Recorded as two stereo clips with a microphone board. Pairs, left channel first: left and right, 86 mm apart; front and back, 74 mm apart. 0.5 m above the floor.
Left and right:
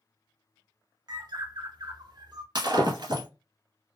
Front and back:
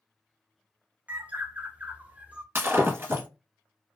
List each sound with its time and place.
1.1 s a bird: 110° right, 0.6 m
2.5 s breaking glass: 120° right, 1.0 m